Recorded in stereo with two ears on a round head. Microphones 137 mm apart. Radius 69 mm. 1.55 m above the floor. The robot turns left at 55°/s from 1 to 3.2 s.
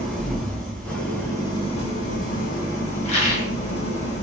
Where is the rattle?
45° left (ahead or behind), 1.1 m; by 3.5 s 35° left (ahead or behind), 1.1 m.